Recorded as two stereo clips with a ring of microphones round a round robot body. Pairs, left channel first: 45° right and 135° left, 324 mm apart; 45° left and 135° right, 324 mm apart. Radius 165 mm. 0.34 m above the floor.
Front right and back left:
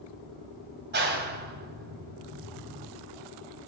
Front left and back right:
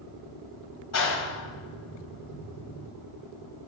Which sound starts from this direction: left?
A clap, at 0.9 s.